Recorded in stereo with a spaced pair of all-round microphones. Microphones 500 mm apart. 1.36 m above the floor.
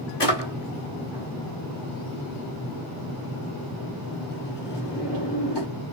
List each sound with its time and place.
0.2 s a drawer: 55° left (ahead or behind), 1.5 m